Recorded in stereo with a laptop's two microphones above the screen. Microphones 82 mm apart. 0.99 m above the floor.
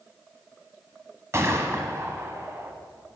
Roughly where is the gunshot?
Right.